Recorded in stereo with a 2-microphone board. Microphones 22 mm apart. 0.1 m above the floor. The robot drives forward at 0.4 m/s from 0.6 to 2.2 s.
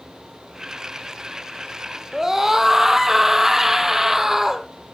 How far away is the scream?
About 3 m.